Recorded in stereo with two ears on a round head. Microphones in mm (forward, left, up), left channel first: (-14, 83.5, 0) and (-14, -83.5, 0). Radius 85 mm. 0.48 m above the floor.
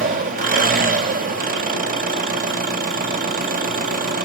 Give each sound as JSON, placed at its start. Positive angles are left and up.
{"t": 0.0, "sound": "an engine running", "side_deg": -50, "distance_m": 2.0}